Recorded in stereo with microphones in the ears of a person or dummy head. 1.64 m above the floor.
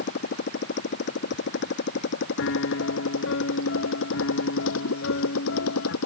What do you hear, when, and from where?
0.0 s a motorcycle: 50° left (ahead or behind); by 6.0 s 75° left (ahead or behind)
2.4 s a piano: 65° left (ahead or behind)